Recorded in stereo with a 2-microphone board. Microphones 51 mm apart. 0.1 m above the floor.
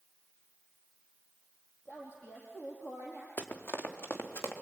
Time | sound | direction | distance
1.9 | a woman speaking | 60° left (ahead or behind) | 4 m
3.4 | running footsteps | 50° left (ahead or behind) | 3 m